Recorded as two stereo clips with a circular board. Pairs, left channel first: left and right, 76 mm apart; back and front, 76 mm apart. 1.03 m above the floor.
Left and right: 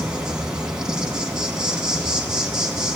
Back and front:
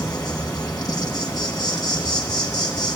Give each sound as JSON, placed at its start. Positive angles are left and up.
{"t": 0.0, "sound": "an insect", "azimuth_deg": -165, "distance_m": 2.5}